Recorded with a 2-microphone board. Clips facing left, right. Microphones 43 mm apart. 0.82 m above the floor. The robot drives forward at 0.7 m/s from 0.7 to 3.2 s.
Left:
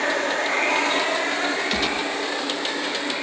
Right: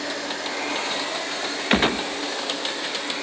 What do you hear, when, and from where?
0.0 s running water: 50° left (ahead or behind), 1.3 m; by 3.2 s 20° left (ahead or behind), 2.5 m
1.7 s a gunshot: 40° right (ahead or behind), 0.6 m; by 2.1 s 30° right (ahead or behind), 0.7 m